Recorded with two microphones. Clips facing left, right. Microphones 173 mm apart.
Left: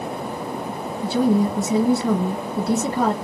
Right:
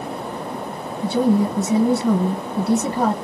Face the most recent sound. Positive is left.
turn(degrees=-5)  # may be behind; listen again after turning